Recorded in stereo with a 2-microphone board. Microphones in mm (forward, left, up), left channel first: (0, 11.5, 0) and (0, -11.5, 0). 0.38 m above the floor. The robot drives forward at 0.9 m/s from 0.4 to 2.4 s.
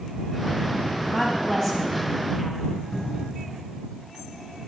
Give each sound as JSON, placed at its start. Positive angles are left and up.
{"t": 1.1, "sound": "a woman speaking", "side_deg": 30, "distance_m": 3.0}
{"t": 2.9, "sound": "a cupboard door", "side_deg": 75, "distance_m": 5.5}